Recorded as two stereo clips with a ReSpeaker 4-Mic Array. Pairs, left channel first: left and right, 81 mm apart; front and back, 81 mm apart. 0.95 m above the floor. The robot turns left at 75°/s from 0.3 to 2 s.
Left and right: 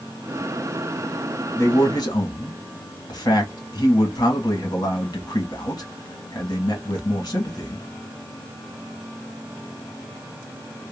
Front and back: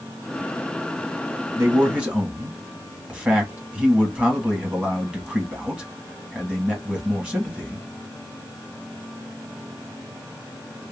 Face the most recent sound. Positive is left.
turn(degrees=110)